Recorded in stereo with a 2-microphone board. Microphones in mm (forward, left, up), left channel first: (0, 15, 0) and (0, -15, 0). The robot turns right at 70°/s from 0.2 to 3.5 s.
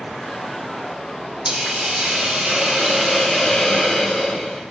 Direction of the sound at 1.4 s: 130° right.